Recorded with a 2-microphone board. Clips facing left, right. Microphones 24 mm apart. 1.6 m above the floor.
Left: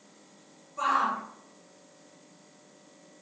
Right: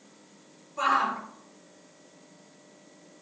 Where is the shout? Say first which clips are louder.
Right 1 dB; 20° right (ahead or behind), 5 m.